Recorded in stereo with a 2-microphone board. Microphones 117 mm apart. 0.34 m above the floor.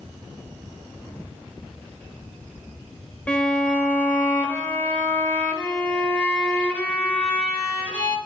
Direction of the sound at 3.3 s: 10° left (ahead or behind).